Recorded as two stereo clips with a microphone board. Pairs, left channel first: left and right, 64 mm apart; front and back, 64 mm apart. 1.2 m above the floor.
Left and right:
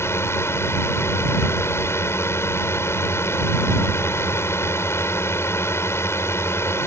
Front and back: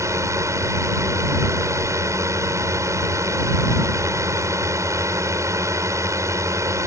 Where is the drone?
140° left.